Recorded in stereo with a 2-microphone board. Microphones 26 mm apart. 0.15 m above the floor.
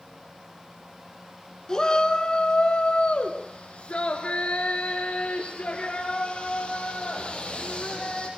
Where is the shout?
25° left (ahead or behind), 2 m; by 8.3 s 40° left (ahead or behind), 5.5 m.